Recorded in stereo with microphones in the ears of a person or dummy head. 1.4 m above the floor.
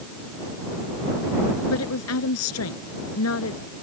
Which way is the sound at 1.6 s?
90° left.